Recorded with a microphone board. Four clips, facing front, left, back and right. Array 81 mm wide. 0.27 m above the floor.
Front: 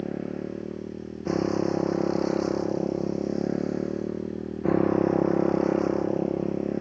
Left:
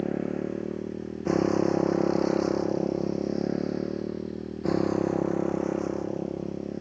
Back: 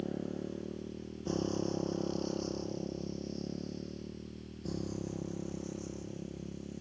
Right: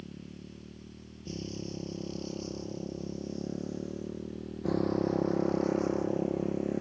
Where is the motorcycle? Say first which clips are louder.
Left 18 dB, front 7 dB; 65° left; by 6.8 s 10° right.